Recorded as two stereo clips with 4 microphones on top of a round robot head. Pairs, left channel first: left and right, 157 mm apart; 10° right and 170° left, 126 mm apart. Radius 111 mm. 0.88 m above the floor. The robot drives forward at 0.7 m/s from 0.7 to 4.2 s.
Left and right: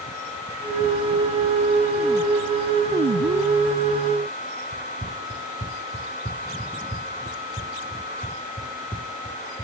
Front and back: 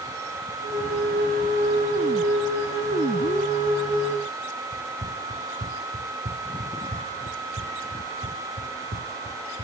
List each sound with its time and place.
4.7 s running footsteps: 140° left; by 9.7 s 160° left